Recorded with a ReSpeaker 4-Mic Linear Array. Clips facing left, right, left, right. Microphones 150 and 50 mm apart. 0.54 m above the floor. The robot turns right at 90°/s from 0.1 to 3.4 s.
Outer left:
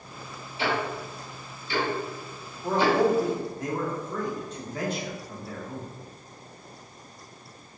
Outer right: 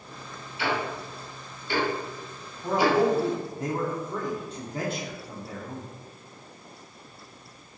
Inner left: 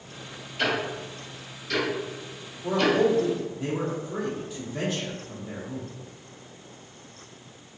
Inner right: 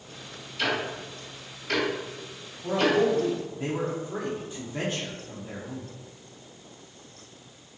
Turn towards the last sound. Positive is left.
turn(degrees=-30)  # may be behind; listen again after turning